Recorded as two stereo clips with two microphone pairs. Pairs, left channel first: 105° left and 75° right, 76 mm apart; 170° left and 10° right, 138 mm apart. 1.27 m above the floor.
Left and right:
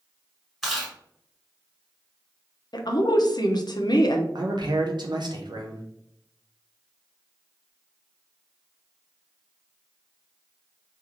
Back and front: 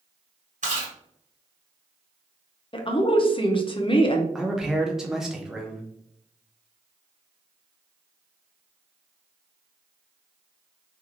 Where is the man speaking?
95° right, 0.7 m.